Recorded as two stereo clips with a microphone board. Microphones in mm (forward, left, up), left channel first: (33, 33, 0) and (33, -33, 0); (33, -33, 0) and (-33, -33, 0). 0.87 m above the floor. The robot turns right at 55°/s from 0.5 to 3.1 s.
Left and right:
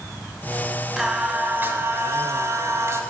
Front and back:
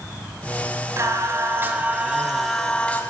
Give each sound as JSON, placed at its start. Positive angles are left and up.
{"t": 1.0, "sound": "singing", "azimuth_deg": -175, "distance_m": 1.0}